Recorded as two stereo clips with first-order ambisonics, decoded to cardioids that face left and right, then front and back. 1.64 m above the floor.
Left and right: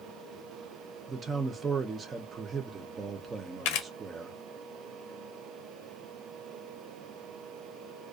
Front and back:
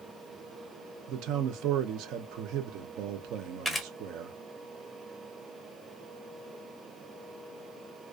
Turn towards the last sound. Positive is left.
turn(degrees=85)